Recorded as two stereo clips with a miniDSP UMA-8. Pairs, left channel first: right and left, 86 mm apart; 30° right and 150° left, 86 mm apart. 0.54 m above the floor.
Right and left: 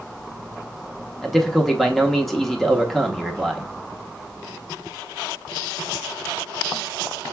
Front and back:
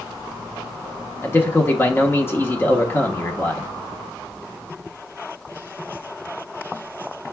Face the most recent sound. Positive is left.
turn(degrees=-5)